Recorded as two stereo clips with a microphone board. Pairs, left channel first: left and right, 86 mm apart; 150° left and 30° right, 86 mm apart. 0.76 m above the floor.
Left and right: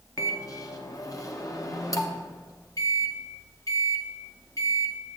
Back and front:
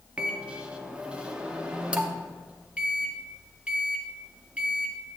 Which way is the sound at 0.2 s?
45° left.